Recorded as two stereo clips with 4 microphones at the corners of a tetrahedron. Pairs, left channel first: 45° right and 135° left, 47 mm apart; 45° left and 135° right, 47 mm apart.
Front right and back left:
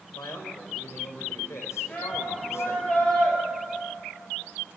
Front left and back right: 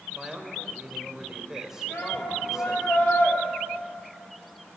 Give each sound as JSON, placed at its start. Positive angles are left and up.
{"t": 0.1, "sound": "a man speaking", "azimuth_deg": -55, "distance_m": 5.0}
{"t": 1.9, "sound": "a shout", "azimuth_deg": 15, "distance_m": 8.0}